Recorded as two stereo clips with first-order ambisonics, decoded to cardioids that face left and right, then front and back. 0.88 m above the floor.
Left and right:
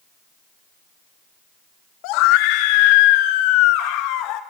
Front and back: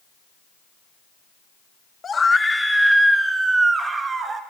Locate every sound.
2.0 s a scream: 70° left, 1.1 m; by 4.4 s 110° left, 2 m